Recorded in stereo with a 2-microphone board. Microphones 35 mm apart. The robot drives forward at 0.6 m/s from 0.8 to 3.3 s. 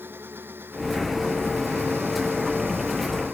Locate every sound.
0.0 s an engine running: 65° right (ahead or behind)